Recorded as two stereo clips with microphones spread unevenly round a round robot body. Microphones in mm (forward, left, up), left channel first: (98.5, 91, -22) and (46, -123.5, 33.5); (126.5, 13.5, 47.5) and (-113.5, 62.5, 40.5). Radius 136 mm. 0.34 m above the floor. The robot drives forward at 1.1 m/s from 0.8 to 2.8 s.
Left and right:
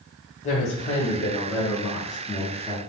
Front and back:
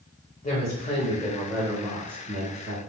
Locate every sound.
0.4 s a woman speaking: 40° left, 1.7 m; by 2.8 s 145° left, 1.8 m